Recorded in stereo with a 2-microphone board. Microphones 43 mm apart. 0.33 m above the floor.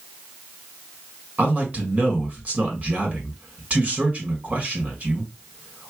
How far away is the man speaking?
About 1.5 m.